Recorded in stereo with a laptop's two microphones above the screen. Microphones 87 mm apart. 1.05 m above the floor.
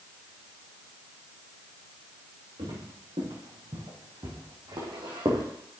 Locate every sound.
2.6 s footsteps: 80° right, 5 m; by 5.5 s 55° right (ahead or behind), 3 m